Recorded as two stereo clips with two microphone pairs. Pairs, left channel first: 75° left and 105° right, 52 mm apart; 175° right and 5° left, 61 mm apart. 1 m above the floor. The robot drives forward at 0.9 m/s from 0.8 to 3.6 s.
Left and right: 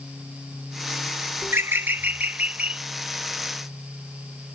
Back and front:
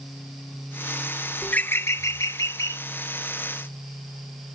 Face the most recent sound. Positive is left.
turn(degrees=-170)